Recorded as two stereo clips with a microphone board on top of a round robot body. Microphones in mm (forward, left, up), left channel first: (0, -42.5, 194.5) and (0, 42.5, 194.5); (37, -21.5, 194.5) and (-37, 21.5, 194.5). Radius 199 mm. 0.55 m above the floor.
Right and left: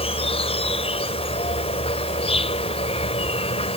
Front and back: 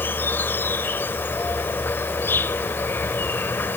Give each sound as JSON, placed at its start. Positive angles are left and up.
{"t": 0.0, "sound": "an insect", "azimuth_deg": -100}